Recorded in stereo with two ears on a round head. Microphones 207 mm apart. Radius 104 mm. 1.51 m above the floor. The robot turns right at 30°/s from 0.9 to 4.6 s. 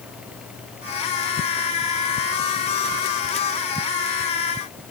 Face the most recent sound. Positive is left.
No sound to turn to.